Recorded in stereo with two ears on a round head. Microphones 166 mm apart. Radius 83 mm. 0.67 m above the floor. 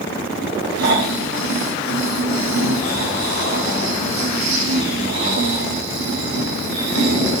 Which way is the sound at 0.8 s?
70° right (ahead or behind).